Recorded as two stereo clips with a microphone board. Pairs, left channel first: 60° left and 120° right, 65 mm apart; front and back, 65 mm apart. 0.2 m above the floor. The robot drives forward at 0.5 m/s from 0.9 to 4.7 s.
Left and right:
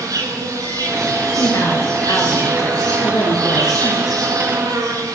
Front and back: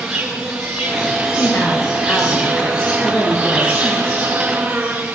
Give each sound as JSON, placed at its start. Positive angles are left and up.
{"t": 0.0, "sound": "an insect", "azimuth_deg": -105, "distance_m": 7.0}
{"t": 1.4, "sound": "a woman speaking", "azimuth_deg": 40, "distance_m": 3.0}